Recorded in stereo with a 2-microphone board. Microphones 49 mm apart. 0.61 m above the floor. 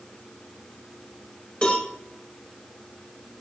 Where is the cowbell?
25° left (ahead or behind), 2.5 m.